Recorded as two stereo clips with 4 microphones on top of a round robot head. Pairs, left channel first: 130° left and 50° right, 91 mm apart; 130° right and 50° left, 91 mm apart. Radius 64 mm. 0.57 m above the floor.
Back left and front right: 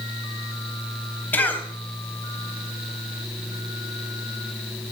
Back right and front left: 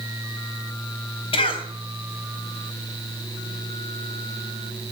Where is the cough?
160° right, 3.5 m.